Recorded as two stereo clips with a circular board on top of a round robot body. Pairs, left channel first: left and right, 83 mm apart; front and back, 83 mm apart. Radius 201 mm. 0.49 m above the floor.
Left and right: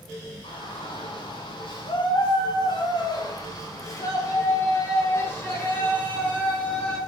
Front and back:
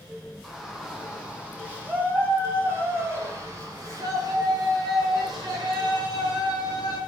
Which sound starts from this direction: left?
A shout, at 0.4 s.